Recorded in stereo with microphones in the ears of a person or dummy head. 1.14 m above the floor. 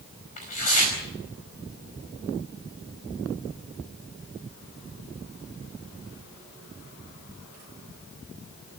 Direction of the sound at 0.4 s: 40° left (ahead or behind).